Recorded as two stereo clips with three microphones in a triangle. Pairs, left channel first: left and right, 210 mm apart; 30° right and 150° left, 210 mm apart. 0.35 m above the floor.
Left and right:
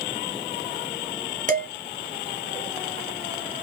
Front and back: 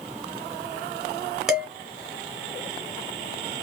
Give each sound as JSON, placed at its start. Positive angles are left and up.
{"t": 1.5, "sound": "dishes clattering", "azimuth_deg": -125, "distance_m": 1.0}